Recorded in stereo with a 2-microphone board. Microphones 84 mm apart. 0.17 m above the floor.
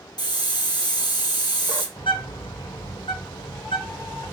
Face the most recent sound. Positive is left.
turn(degrees=80)